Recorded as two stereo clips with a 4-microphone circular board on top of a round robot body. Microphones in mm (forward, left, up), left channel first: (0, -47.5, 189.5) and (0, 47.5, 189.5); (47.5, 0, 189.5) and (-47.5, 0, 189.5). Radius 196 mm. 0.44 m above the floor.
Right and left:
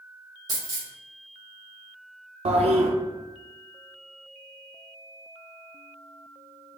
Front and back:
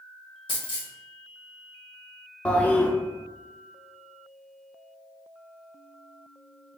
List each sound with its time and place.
0.5 s a dropped coin: 40° left, 1.7 m
2.5 s a toilet flushing: 80° left, 0.5 m